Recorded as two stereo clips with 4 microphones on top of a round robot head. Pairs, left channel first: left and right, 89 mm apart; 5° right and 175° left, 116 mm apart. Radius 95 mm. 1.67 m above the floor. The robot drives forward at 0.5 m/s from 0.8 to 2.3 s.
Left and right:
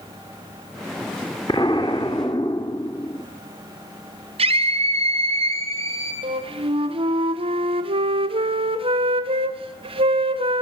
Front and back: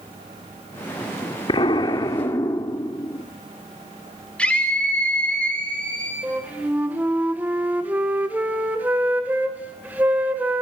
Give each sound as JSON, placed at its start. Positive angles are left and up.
{"t": 1.5, "sound": "an explosion", "azimuth_deg": 30, "distance_m": 1.6}
{"t": 4.4, "sound": "a scream", "azimuth_deg": -85, "distance_m": 5.5}
{"t": 6.2, "sound": "a flute", "azimuth_deg": -105, "distance_m": 1.8}